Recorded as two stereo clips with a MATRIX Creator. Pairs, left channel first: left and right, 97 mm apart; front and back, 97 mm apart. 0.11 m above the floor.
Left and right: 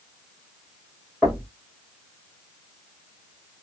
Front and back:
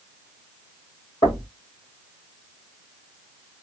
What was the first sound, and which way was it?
Knocking, 20° right.